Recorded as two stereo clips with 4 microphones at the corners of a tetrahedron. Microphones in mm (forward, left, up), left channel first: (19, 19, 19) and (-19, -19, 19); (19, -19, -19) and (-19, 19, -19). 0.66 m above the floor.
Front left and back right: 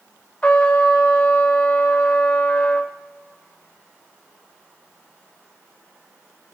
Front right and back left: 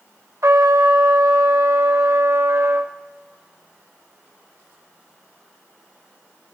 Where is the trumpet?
110° left, 0.8 m.